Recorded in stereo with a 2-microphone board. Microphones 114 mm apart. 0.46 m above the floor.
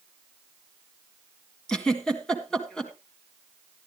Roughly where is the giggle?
Centre.